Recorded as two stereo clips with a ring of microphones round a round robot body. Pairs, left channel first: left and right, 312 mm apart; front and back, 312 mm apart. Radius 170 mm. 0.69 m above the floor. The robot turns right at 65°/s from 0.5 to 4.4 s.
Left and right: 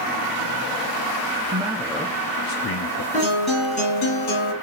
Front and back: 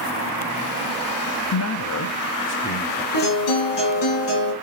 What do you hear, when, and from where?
1.5 s a man speaking: 25° right, 0.6 m; by 3.0 s 75° left, 0.6 m
3.1 s a guitar: 20° right, 4 m; by 4.5 s 60° left, 4 m